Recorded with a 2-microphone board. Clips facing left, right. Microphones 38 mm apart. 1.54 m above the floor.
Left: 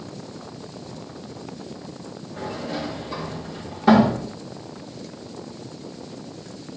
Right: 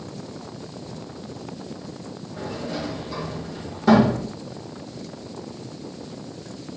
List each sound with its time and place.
2.4 s a sliding door: 20° left (ahead or behind), 2.5 m